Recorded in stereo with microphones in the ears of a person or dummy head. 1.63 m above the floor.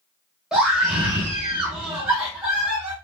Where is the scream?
5° right (ahead or behind), 1.9 m.